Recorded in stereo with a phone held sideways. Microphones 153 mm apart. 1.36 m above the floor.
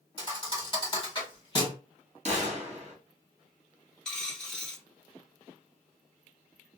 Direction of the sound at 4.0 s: 5° left (ahead or behind).